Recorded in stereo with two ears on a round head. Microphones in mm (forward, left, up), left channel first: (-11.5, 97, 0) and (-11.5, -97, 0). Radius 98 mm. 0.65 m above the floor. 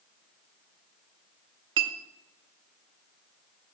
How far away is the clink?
About 1.0 m.